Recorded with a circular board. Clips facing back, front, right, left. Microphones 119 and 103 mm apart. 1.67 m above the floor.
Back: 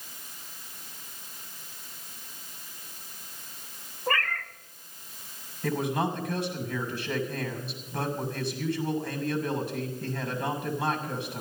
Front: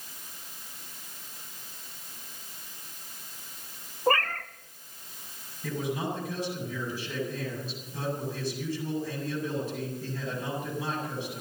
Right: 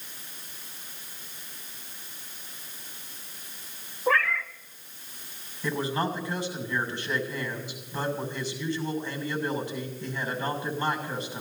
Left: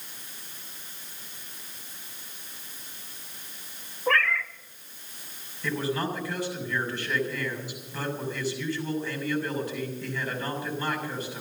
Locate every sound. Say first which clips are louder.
4.1 s a cat meowing: front 4 dB, even; 15° right, 1.2 m
5.6 s a man speaking: back 4 dB, right 1 dB; 160° right, 6.5 m